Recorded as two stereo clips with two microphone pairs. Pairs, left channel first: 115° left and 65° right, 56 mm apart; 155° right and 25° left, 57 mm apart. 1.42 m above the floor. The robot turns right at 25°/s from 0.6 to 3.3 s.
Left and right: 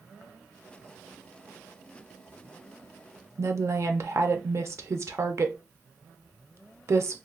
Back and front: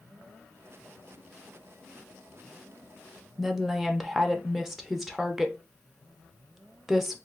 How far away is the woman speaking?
About 0.5 m.